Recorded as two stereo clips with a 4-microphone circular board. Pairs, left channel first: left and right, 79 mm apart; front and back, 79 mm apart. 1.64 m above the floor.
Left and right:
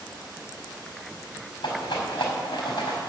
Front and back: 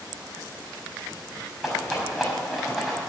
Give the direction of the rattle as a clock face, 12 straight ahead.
9 o'clock.